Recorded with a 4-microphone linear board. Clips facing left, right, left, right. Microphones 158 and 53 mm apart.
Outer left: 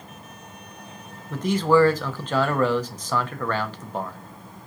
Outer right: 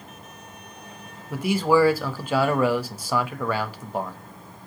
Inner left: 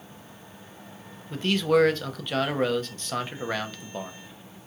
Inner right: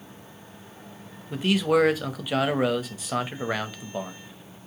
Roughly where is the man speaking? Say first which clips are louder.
Outer left 1 dB, even; centre.